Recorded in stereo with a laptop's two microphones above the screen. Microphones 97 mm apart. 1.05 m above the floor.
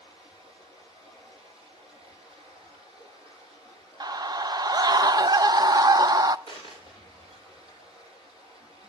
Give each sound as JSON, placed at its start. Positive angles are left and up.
{"t": 0.0, "sound": "running water", "side_deg": -85, "distance_m": 9.0}
{"t": 4.0, "sound": "a scream", "side_deg": -45, "distance_m": 0.6}
{"t": 6.5, "sound": "a dropped coin", "side_deg": -55, "distance_m": 6.5}